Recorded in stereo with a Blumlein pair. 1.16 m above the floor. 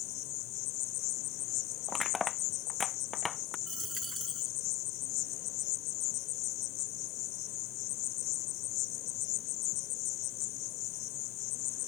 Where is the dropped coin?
10° right.